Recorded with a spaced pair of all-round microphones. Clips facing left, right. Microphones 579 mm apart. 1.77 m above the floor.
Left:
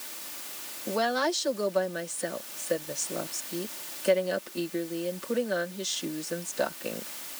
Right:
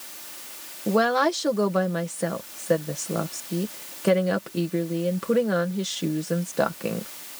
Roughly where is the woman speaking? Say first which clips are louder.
Right 7 dB; right.